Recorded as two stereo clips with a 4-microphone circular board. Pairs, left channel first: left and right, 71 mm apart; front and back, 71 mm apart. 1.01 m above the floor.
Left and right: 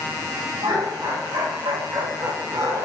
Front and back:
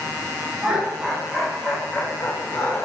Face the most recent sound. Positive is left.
turn(degrees=-50)